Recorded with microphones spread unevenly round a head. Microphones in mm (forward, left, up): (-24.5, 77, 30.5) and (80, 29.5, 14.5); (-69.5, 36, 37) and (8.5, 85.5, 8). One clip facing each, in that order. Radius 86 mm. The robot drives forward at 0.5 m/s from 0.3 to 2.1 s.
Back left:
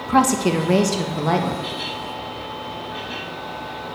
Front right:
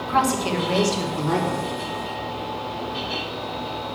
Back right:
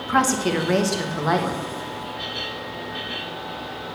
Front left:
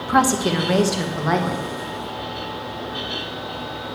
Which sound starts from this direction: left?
A woman speaking, at 0.1 s.